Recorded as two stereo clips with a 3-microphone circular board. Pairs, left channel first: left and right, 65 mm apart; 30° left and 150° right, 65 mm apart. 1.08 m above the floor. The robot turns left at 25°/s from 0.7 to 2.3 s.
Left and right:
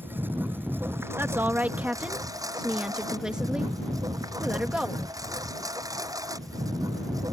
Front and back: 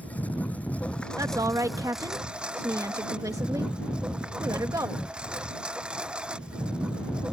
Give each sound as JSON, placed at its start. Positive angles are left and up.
{"t": 0.0, "sound": "a lawn mower", "azimuth_deg": -35}
{"t": 1.2, "sound": "a woman speaking", "azimuth_deg": -140}